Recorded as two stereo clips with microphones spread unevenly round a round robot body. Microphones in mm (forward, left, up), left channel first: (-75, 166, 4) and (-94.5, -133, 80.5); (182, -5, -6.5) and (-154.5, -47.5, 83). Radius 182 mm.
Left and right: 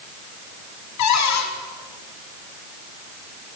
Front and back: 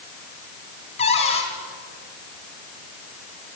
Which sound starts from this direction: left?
A cupboard door, at 1.0 s.